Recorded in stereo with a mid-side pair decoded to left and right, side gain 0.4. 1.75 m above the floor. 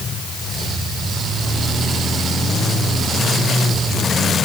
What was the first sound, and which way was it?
Only background noise.